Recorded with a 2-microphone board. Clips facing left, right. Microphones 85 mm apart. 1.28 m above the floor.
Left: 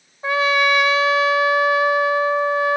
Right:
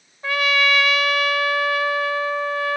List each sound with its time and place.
0.2 s a trumpet: 25° left (ahead or behind)